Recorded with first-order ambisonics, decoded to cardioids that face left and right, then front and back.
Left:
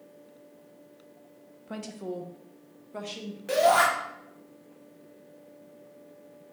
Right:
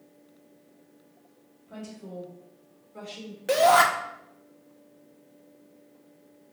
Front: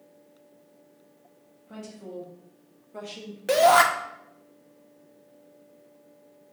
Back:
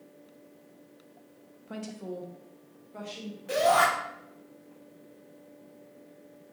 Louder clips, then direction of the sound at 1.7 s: Left 5 dB, back 2 dB; 120° left.